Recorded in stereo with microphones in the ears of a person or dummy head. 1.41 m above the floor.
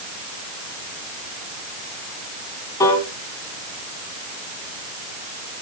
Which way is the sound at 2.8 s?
20° left (ahead or behind).